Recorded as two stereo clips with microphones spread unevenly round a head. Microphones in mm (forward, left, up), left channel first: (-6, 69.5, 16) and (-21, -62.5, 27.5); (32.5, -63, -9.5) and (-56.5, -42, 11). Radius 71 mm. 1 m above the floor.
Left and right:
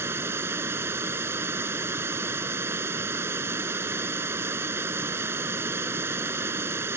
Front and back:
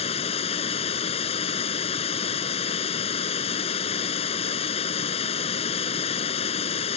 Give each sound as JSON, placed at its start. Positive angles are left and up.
{"t": 0.0, "sound": "running water", "azimuth_deg": -20}